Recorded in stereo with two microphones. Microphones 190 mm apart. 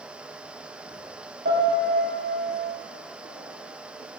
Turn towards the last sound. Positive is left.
turn(degrees=-70)  # may be behind; listen again after turning